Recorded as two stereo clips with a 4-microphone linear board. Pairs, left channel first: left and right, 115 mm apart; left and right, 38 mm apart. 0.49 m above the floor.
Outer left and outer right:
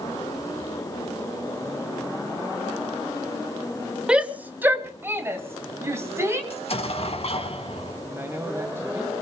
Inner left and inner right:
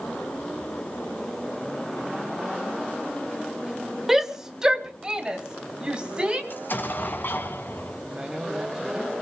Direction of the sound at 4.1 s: 10° right (ahead or behind).